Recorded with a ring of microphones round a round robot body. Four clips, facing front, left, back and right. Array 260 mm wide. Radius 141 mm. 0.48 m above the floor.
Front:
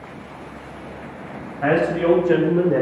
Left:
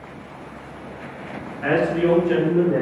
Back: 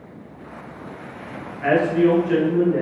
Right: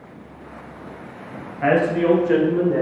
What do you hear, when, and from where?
1.6 s a man speaking: 45° right, 2.5 m; by 2.8 s straight ahead, 1.6 m